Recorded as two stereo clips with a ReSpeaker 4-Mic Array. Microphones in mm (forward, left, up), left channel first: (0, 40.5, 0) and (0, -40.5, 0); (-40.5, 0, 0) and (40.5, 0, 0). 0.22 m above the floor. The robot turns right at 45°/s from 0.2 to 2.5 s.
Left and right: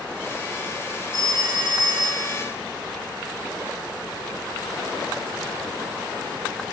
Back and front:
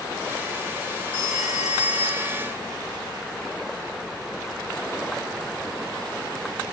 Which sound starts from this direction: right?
A phone ringing, at 1.1 s.